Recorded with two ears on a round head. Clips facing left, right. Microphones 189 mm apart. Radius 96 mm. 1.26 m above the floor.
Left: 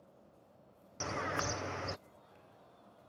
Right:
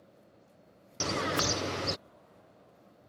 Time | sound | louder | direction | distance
1.0 | a bird | right 7 dB | 50° right (ahead or behind) | ?